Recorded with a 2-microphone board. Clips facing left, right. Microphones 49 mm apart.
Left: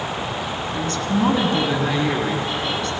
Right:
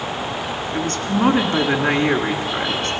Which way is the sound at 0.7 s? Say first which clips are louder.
Right 1 dB; 40° right (ahead or behind).